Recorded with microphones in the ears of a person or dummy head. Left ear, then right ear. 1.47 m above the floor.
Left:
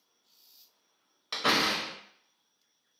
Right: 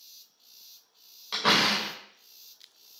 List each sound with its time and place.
1.3 s a door slam: 15° left (ahead or behind), 0.7 m